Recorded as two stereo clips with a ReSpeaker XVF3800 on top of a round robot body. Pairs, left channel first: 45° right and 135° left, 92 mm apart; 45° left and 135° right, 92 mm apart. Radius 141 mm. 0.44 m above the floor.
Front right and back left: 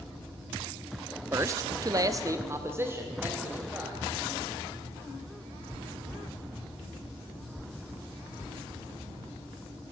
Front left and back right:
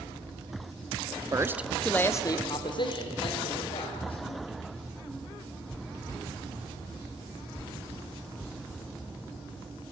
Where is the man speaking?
170° right, 1.1 m; by 4.2 s 60° left, 3.5 m.